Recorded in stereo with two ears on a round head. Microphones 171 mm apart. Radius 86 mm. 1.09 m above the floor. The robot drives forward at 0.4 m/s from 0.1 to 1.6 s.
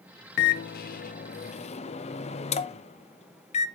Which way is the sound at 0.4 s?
55° left (ahead or behind).